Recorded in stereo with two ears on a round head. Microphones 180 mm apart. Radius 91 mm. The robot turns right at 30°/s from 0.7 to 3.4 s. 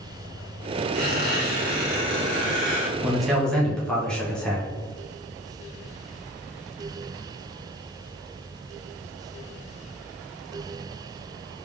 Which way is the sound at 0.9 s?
125° right.